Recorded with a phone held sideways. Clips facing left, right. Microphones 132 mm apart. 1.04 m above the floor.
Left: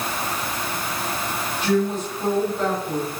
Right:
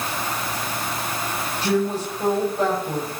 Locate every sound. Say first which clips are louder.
1.6 s a woman speaking: left 1 dB; 35° right (ahead or behind), 6 m